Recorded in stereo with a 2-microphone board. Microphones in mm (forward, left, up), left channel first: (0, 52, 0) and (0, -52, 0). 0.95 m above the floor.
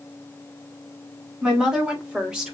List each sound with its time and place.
1.4 s a woman speaking: 10° right (ahead or behind), 2 m; by 2.5 s 5° right (ahead or behind), 1.5 m